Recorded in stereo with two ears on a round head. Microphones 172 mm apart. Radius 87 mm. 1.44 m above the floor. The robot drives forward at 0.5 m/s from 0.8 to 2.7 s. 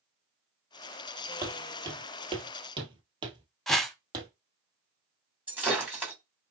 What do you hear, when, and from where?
1.4 s footsteps: 15° right (ahead or behind), 1.9 m; by 4.3 s 20° right (ahead or behind), 2.5 m
3.7 s a whoosh: centre (ahead or behind), 0.6 m
5.5 s breaking glass: 10° right (ahead or behind), 2.5 m